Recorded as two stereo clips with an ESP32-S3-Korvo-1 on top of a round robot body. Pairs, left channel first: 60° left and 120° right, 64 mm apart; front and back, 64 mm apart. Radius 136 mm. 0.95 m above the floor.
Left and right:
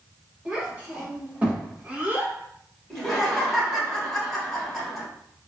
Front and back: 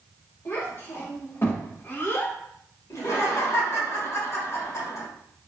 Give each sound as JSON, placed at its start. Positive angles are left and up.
{"t": 0.5, "sound": "a child speaking", "azimuth_deg": -50, "distance_m": 1.6}
{"t": 2.9, "sound": "laughter", "azimuth_deg": -25, "distance_m": 1.5}